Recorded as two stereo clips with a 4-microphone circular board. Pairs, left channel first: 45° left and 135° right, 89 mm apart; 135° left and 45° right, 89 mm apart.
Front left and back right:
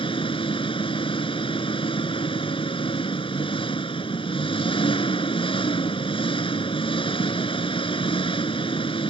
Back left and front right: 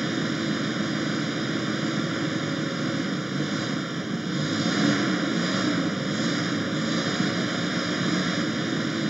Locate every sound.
0.0 s an engine running: 40° left